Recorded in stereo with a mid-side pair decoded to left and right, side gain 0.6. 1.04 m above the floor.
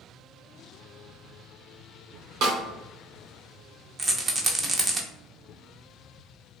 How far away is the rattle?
About 0.6 m.